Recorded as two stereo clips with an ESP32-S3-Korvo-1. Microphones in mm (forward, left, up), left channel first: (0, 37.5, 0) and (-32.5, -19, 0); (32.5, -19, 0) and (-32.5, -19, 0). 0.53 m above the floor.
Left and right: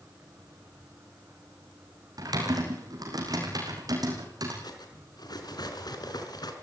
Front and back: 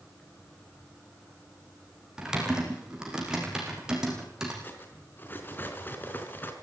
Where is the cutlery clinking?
60° left, 4 m.